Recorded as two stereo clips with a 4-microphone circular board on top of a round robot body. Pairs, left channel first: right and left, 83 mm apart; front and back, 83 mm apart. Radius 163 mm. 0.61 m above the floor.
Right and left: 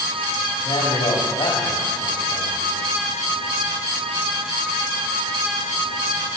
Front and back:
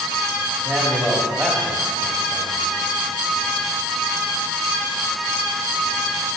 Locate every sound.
0.7 s a man speaking: 105° right, 2 m